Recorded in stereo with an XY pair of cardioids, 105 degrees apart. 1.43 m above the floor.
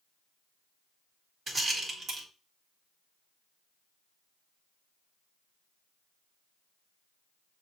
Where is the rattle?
40° right, 1.7 m.